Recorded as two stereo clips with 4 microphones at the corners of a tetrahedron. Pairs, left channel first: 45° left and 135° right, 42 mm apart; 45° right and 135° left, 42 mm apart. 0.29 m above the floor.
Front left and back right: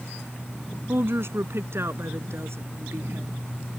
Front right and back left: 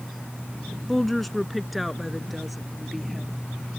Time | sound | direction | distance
0.9 | a woman speaking | 130° right | ?